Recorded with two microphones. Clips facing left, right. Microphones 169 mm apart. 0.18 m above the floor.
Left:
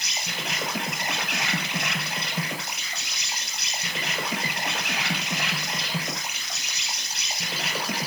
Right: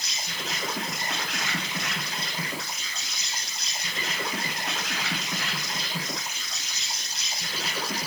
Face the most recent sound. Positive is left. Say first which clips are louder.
# left 2 dB
turn(degrees=70)  # may be behind; listen again after turning